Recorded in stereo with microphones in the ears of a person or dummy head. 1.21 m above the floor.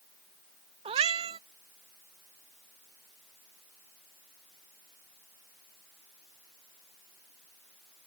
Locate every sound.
0.8 s a cat meowing: 30° right (ahead or behind)